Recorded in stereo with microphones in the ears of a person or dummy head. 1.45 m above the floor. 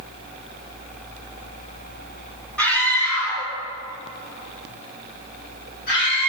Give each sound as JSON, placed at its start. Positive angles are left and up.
{"t": 2.6, "sound": "a scream", "side_deg": 10, "distance_m": 3.0}